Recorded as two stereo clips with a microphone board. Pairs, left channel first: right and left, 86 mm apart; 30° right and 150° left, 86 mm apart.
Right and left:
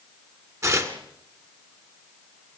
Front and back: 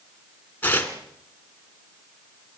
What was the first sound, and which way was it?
Tearing paper, 40° left.